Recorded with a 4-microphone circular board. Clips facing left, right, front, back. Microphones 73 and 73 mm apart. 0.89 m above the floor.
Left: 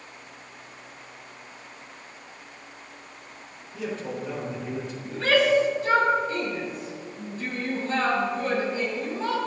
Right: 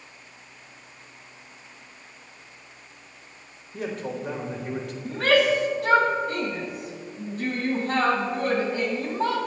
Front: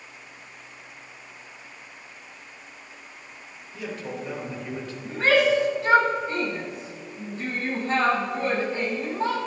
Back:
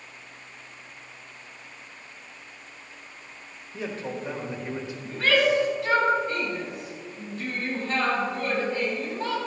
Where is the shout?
65° right, 6.5 m.